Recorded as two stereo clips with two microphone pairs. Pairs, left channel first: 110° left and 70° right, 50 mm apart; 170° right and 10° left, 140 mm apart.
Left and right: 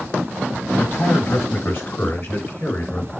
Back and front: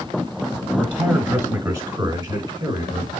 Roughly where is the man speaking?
Left.